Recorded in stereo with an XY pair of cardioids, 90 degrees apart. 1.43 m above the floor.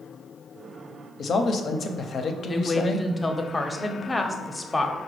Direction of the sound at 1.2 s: 55° left.